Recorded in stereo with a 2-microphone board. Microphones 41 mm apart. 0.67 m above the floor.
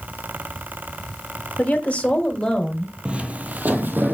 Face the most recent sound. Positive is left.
turn(degrees=-60)  # may be behind; listen again after turning